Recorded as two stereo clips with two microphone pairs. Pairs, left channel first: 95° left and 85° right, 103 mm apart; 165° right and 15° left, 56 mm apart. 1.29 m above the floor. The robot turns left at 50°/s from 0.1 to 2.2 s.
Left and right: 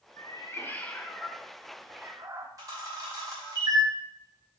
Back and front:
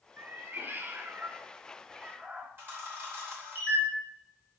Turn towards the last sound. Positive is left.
turn(degrees=-30)